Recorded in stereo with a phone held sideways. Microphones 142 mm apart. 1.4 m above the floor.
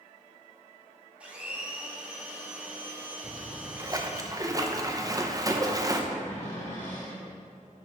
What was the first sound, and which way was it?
A blender, 10° right (ahead or behind).